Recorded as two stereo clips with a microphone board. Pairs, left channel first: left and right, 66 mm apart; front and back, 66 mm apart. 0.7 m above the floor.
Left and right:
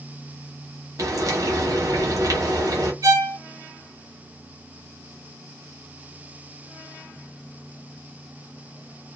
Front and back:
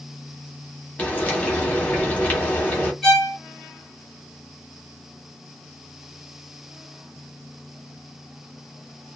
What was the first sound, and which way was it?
Frying, 70° right.